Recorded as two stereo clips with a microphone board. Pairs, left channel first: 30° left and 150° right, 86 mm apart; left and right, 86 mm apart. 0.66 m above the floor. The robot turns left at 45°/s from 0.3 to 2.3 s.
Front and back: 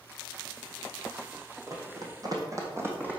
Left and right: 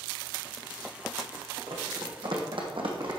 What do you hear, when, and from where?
1.7 s running footsteps: 100° right, 2 m; by 3.2 s 80° right, 2 m